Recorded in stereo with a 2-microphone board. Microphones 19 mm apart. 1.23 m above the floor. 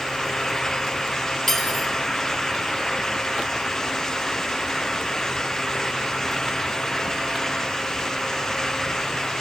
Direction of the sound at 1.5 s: 20° left (ahead or behind).